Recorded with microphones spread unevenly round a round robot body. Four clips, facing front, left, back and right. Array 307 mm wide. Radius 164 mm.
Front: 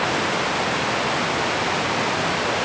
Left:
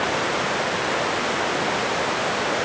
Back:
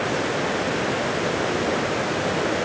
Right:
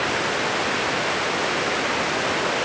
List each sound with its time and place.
Only background noise.